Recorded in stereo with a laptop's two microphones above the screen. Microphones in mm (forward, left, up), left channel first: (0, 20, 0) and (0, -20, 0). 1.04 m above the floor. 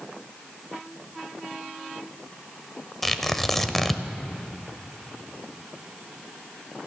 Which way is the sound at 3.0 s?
10° left (ahead or behind).